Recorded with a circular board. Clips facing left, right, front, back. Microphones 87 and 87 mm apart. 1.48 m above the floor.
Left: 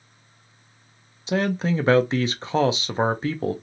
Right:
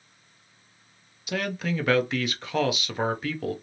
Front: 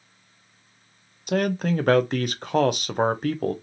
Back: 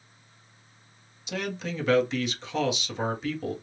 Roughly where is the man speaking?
Ahead left.